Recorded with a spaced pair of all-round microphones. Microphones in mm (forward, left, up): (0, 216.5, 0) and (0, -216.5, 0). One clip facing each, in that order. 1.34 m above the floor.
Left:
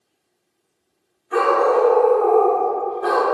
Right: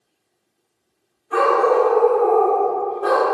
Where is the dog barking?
40° left (ahead or behind), 1.4 m; by 3.2 s 30° left (ahead or behind), 1.0 m.